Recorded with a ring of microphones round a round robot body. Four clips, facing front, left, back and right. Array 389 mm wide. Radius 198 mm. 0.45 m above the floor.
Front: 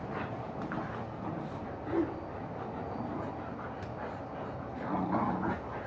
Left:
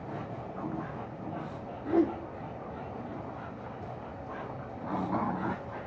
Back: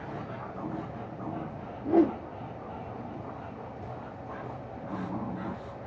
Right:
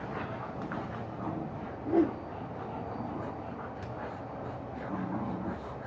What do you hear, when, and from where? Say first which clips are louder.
1.7 s a whoosh: even, back 9 dB; 175° right, 1.1 m